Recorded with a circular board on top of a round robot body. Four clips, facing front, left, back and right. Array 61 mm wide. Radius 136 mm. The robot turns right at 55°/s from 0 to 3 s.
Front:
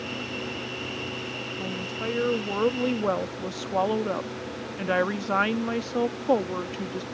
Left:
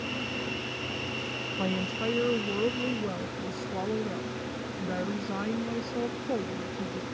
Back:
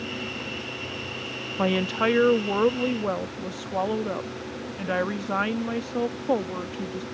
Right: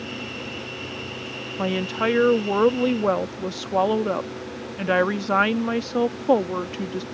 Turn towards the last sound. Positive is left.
turn(degrees=-80)